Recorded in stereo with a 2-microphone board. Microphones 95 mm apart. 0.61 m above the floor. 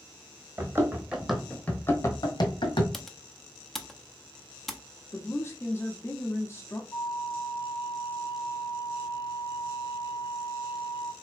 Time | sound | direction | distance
0.6 | running footsteps | 30° right (ahead or behind) | 1.2 m
2.9 | typing on a keyboard | 5° left (ahead or behind) | 0.5 m
5.1 | a woman speaking | 25° left (ahead or behind) | 0.7 m
6.9 | a flute | 45° left (ahead or behind) | 0.6 m